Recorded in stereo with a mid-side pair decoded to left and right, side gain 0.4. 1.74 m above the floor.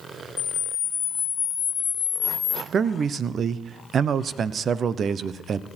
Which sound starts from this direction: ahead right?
A man speaking, at 2.7 s.